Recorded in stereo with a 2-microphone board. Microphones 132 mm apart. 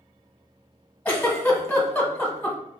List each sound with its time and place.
1.1 s a giggle: 15° left (ahead or behind), 1.3 m